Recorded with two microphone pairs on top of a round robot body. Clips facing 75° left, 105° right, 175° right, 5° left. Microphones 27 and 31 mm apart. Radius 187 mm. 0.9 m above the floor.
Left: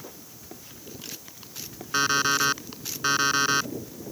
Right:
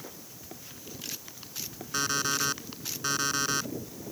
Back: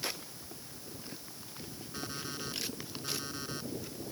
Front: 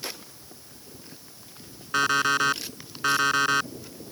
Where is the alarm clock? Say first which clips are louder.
Left 6 dB, front 20 dB; 20° left.